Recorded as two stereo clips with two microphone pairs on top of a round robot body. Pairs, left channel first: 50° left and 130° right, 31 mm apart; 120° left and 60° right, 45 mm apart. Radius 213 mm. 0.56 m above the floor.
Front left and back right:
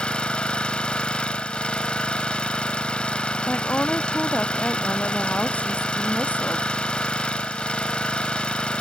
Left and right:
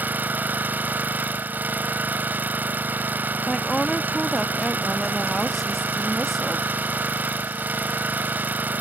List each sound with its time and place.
0.0 s an engine running: 10° right
3.5 s a woman speaking: 35° left